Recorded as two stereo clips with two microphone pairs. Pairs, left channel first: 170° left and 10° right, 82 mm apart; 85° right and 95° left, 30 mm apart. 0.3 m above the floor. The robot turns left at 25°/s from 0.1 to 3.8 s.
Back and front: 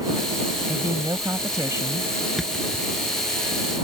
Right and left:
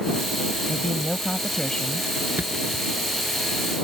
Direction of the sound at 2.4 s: 80° left.